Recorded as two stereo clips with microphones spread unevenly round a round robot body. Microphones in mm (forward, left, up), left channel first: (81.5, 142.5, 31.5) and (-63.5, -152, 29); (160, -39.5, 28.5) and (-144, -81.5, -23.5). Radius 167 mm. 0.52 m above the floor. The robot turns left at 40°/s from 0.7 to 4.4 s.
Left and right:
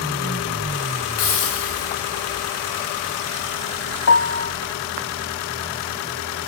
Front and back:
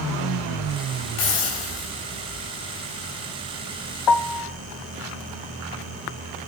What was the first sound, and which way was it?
A hiss, 25° left.